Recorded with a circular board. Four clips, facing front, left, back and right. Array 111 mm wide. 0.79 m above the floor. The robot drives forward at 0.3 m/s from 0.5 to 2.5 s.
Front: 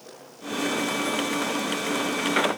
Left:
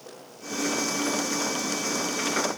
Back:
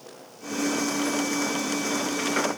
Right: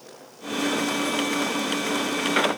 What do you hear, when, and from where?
Only background noise.